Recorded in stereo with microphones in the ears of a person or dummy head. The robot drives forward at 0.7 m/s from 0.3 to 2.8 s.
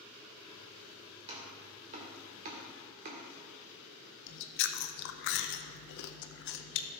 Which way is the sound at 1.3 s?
30° right (ahead or behind).